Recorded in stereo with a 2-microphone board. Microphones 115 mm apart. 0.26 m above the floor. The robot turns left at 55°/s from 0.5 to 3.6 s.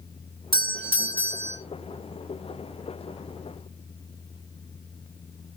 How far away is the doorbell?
About 2.5 m.